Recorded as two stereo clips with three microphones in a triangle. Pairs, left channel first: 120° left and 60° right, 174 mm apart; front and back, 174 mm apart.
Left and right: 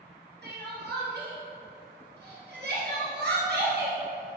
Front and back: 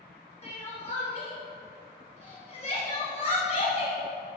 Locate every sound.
0.4 s crying: 55° right, 3 m